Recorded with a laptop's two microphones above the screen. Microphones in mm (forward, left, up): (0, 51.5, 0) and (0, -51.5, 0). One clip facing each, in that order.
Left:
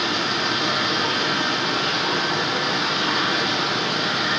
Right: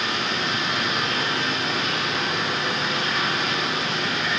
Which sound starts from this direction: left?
Running water, at 0.0 s.